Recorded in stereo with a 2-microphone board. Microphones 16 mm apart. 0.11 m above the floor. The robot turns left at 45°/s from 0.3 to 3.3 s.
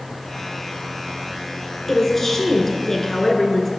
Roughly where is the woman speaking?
Centre.